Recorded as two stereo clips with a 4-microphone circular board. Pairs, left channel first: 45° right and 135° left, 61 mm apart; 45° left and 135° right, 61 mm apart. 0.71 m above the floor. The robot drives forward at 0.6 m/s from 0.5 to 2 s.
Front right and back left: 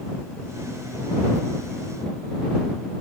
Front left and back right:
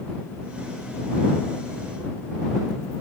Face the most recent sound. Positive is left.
No sound to turn to.